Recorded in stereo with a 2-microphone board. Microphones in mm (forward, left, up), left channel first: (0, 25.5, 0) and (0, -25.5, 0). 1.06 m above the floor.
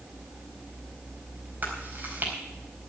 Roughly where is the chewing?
Right.